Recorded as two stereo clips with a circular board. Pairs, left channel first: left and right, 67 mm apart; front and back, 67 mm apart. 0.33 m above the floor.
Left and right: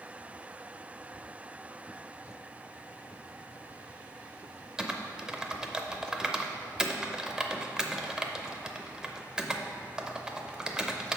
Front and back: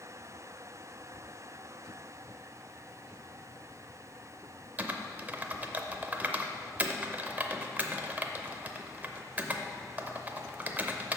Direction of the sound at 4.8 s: 155° right.